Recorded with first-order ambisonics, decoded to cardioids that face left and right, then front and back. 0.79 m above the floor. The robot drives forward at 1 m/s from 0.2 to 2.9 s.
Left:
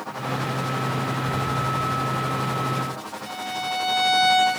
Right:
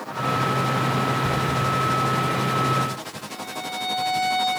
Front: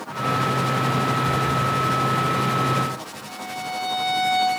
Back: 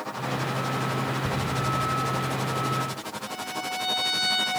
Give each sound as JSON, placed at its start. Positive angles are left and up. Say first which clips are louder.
{"t": 1.2, "sound": "ticking", "louder": "right 3 dB, front 7 dB", "azimuth_deg": -125, "distance_m": 1.7}
{"t": 3.3, "sound": "a violin", "louder": "left 5 dB, front 2 dB", "azimuth_deg": 100, "distance_m": 1.7}